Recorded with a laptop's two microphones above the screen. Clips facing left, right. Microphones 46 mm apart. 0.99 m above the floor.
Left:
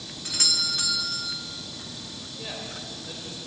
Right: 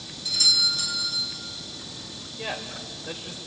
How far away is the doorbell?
About 3 m.